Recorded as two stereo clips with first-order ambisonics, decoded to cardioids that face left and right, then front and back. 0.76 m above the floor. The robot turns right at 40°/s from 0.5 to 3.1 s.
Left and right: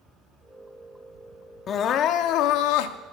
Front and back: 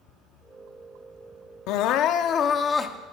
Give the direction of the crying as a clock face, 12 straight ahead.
11 o'clock.